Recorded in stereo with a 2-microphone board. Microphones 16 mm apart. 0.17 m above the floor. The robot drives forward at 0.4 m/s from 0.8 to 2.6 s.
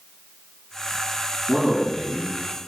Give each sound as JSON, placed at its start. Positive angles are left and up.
{"t": 1.5, "sound": "a man speaking", "side_deg": -20, "distance_m": 1.7}